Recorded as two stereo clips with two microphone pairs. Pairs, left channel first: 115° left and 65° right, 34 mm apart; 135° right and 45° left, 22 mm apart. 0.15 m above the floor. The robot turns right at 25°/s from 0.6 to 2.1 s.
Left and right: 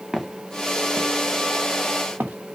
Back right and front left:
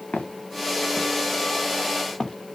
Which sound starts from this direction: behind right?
Footsteps, at 0.1 s.